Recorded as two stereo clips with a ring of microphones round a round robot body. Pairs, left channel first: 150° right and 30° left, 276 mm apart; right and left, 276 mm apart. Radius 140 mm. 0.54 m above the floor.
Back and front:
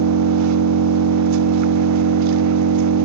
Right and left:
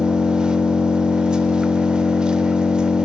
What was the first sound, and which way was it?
An engine running, 5° left.